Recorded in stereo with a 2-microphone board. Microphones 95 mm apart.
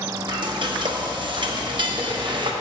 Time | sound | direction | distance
0.3 | frying | 55° right (ahead or behind) | 0.9 m